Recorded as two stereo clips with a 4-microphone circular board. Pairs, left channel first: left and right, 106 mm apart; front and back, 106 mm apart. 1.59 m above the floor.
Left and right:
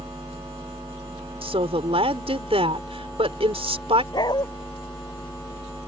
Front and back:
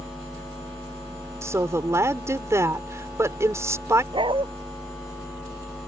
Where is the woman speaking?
115° right.